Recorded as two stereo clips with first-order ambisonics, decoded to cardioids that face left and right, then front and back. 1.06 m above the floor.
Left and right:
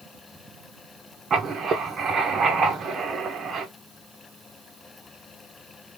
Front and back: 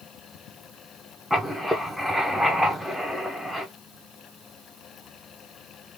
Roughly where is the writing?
Right.